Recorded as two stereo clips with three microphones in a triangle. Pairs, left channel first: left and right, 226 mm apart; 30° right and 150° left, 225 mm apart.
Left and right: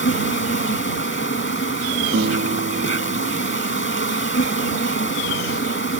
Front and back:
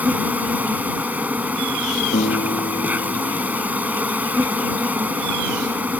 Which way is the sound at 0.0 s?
65° left.